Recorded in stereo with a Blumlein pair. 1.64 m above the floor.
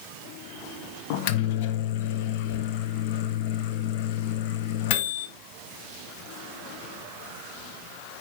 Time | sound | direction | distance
1.1 | a microwave | 45° left | 0.7 m